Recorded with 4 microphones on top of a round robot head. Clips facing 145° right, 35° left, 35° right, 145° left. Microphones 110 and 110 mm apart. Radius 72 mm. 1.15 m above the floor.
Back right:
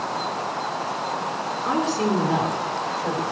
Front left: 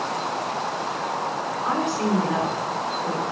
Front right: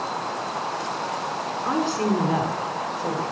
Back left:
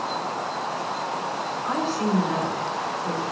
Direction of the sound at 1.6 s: 80° right.